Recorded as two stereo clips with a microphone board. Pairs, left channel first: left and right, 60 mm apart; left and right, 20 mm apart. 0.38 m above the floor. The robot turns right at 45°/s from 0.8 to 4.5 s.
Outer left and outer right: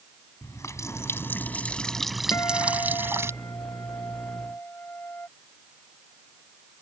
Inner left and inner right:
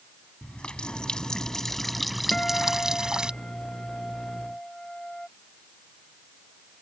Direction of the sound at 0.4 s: 120° left.